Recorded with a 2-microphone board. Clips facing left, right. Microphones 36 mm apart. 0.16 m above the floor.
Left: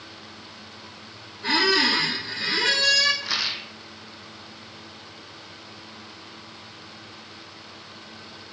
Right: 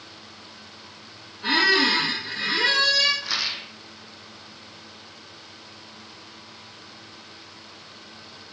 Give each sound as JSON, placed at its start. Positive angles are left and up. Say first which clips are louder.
{"t": 1.4, "sound": "a squeak", "louder": "right 1 dB", "side_deg": -25, "distance_m": 2.5}
{"t": 3.2, "sound": "a rattle", "louder": "even", "side_deg": 5, "distance_m": 1.2}